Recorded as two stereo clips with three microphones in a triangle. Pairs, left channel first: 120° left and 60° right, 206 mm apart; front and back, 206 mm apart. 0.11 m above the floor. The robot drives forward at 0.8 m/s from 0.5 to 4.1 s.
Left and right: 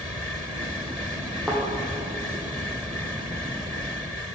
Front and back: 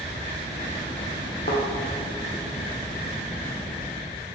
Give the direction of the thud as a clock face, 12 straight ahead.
11 o'clock.